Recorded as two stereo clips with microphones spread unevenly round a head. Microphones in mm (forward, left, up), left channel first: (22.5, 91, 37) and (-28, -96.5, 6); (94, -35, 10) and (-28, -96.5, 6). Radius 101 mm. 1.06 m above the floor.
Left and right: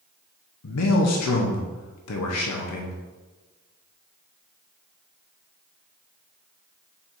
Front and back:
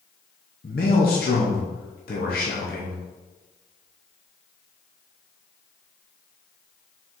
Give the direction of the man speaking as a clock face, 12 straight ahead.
10 o'clock.